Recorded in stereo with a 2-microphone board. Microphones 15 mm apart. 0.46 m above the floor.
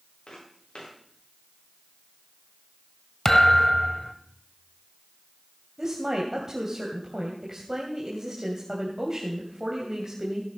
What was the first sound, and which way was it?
Footsteps, 85° left.